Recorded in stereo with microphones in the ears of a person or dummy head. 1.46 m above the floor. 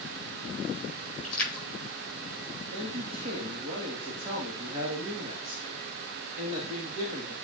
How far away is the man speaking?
About 2.5 m.